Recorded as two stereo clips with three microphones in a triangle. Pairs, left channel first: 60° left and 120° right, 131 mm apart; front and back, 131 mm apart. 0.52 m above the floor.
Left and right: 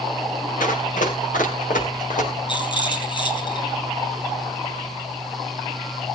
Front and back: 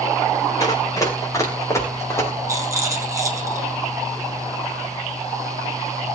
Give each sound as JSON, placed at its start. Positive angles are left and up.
{"t": 0.6, "sound": "running footsteps", "azimuth_deg": 65, "distance_m": 6.5}
{"t": 2.5, "sound": "a rattle", "azimuth_deg": 115, "distance_m": 4.5}